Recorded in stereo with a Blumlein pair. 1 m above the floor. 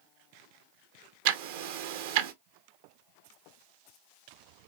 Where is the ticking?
50° right, 0.6 m.